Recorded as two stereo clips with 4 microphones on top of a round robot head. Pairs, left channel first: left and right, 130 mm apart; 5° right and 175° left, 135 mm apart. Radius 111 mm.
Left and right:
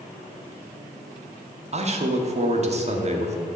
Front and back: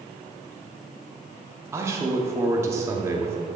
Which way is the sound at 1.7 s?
115° right.